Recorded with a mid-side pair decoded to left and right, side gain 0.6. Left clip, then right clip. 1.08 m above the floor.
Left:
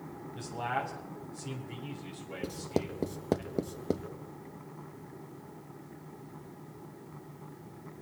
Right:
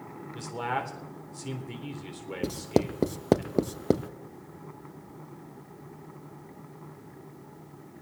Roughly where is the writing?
Ahead right.